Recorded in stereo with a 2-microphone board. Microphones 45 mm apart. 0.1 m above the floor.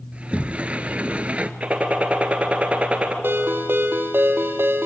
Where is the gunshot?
30° right (ahead or behind), 1.5 m.